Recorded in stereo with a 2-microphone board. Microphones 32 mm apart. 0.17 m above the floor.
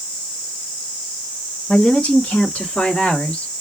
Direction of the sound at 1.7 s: 35° left (ahead or behind).